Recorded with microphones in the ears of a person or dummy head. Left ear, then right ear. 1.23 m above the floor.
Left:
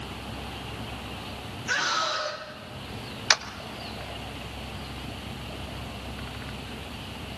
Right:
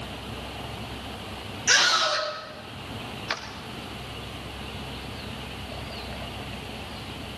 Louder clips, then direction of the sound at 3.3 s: Left 9 dB; 40° left (ahead or behind).